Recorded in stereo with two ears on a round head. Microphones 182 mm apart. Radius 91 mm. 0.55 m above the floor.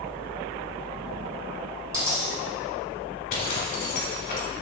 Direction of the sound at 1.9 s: 20° right (ahead or behind).